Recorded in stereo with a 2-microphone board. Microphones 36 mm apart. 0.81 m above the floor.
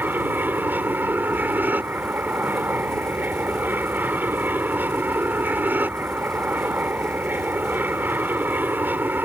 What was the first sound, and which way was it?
An aircraft, 60° right (ahead or behind).